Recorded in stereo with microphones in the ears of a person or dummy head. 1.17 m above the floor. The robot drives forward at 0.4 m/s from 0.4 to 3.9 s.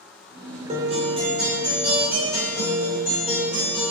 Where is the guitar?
40° right (ahead or behind), 0.6 m; by 3.9 s 15° right (ahead or behind), 1.8 m.